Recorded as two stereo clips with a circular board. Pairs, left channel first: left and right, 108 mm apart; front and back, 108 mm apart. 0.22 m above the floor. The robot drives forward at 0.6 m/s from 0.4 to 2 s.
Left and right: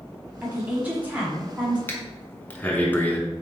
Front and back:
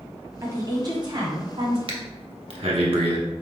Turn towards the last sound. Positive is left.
turn(degrees=160)